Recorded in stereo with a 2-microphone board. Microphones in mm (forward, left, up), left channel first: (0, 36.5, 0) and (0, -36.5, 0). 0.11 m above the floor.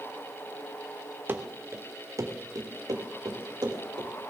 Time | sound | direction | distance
1.3 | running footsteps | 30° right (ahead or behind) | 2 m